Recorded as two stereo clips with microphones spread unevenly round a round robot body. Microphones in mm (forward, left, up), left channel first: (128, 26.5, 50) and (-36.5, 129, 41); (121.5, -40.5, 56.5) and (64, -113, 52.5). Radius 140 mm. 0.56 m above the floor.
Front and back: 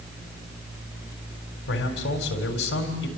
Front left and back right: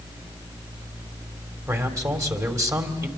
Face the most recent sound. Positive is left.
turn(degrees=-75)